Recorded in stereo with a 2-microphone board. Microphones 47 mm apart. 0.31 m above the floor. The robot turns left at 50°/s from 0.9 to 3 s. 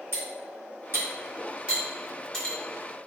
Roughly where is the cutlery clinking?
Right.